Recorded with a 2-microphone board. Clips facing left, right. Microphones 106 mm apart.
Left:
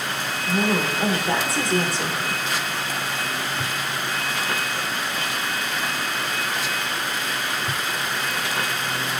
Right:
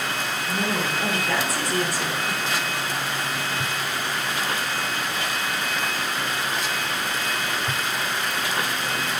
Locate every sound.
0.5 s a woman speaking: 25° left (ahead or behind), 2 m